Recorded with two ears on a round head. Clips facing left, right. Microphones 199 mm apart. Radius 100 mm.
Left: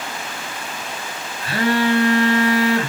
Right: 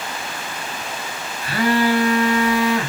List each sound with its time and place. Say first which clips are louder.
1.4 s a phone buzzing: even; 25° left (ahead or behind), 2 m